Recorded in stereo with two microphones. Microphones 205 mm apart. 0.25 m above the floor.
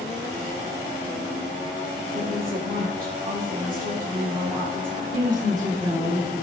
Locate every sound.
2.1 s a woman speaking: 40° right (ahead or behind), 6 m
5.1 s a woman speaking: 40° right (ahead or behind), 3.5 m